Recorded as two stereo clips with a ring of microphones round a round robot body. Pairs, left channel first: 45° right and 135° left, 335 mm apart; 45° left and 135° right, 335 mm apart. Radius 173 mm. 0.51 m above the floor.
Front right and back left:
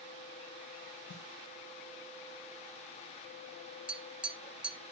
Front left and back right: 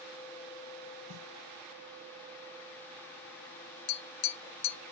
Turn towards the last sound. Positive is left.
turn(degrees=50)